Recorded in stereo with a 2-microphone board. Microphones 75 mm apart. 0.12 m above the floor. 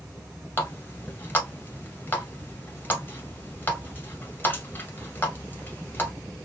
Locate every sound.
0.6 s a running tap: 25° left (ahead or behind), 1.1 m